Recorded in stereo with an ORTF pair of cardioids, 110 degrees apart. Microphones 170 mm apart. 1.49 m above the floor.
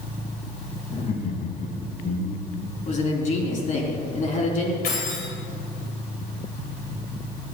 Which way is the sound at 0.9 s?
45° left.